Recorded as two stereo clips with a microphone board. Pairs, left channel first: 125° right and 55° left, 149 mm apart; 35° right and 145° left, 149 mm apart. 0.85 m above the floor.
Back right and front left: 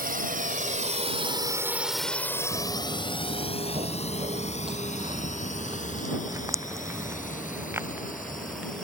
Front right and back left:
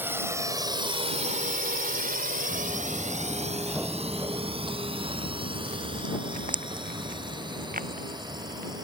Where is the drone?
70° left; by 8.8 s 155° right.